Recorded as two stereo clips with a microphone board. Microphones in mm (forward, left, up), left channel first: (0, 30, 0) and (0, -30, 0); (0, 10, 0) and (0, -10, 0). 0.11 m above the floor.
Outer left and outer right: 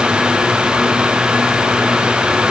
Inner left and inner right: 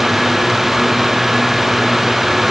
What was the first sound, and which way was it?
Only background noise.